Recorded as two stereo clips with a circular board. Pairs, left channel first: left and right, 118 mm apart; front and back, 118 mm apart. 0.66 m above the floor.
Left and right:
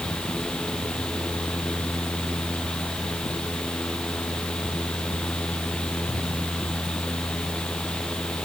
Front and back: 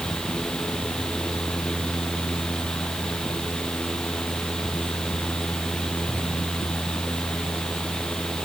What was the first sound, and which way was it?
Only background noise.